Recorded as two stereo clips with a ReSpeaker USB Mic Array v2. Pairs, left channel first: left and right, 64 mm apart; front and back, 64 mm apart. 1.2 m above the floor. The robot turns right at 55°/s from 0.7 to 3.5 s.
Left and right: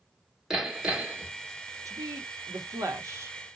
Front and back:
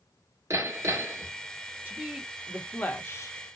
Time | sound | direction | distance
0.5 | hammering | 175° right | 1.1 m
1.9 | a woman speaking | 120° right | 0.9 m